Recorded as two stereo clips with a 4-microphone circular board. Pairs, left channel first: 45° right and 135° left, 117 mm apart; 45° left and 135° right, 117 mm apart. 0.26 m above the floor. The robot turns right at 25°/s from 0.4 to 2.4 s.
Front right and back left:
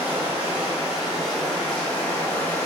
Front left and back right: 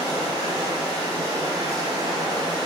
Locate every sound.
0.0 s running water: 160° right, 0.7 m; by 2.7 s 110° right, 0.7 m